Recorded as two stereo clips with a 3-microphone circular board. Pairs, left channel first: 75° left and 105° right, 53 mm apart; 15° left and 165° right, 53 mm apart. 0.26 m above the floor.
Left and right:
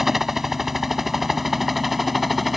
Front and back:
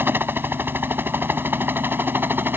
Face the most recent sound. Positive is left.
turn(degrees=165)